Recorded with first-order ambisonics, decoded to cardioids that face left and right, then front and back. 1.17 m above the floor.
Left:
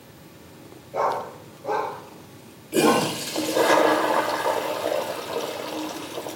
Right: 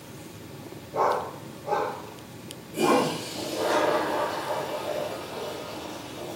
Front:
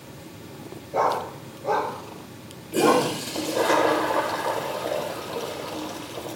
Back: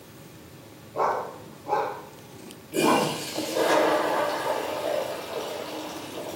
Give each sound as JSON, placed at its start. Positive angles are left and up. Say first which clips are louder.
{"t": 0.9, "sound": "a dog barking", "louder": "even, front 3 dB", "azimuth_deg": 15, "distance_m": 6.0}
{"t": 2.7, "sound": "a toilet flushing", "louder": "left 3 dB, front 2 dB", "azimuth_deg": 75, "distance_m": 1.5}